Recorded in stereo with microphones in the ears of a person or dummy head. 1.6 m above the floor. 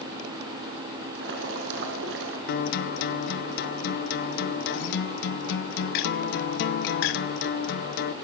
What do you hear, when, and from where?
1.1 s boiling: 70° right (ahead or behind), 4.5 m
2.5 s a guitar: 65° left (ahead or behind), 0.9 m